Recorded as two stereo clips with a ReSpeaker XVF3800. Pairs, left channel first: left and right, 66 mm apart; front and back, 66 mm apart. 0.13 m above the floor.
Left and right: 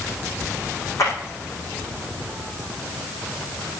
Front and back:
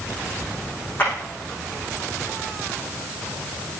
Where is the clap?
55° left, 6.5 m.